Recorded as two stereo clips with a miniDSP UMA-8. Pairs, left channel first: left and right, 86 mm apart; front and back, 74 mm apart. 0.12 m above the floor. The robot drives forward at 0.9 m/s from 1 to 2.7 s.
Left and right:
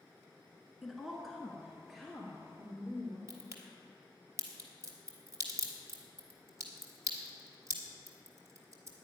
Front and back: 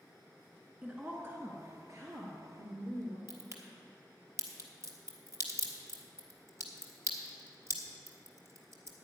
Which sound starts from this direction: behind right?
A crack, at 3.3 s.